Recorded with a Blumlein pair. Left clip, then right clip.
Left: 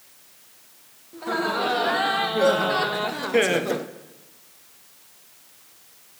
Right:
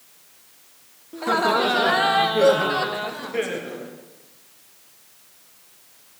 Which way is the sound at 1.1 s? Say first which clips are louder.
Right 5 dB; 20° right.